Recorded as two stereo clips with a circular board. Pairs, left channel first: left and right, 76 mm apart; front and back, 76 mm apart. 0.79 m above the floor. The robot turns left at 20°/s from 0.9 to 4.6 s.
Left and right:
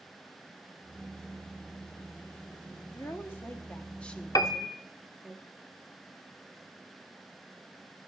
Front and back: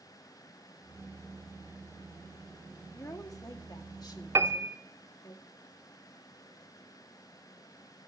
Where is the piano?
125° left, 0.8 m; by 4.8 s 120° left, 0.8 m.